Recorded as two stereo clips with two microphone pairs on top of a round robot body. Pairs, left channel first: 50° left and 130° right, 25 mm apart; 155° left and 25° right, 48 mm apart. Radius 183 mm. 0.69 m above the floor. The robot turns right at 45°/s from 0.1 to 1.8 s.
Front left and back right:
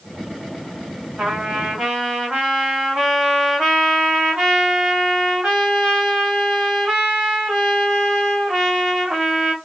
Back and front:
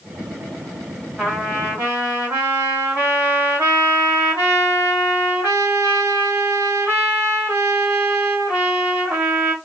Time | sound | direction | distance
1.2 | a trumpet | 95° right | 1.4 m